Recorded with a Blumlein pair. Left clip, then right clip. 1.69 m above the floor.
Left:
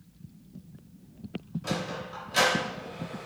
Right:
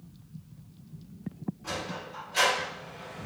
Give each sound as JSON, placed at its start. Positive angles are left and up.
{"t": 1.6, "sound": "a sliding door", "azimuth_deg": 65, "distance_m": 1.3}